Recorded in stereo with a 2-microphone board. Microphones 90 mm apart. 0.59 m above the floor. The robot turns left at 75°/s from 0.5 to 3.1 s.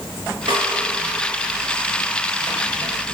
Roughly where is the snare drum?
Right.